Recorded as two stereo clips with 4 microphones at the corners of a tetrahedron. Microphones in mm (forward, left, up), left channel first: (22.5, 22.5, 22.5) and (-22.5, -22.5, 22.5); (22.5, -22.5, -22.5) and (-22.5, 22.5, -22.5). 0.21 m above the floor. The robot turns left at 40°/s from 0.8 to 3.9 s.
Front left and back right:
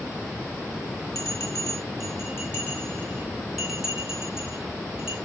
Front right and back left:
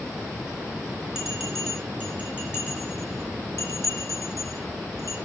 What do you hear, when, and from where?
1.1 s a bell: 55° left, 3 m; by 5.2 s 55° right, 3 m